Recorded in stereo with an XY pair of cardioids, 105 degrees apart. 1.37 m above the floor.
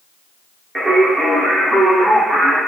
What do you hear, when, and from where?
0.8 s singing: 10° right, 1.1 m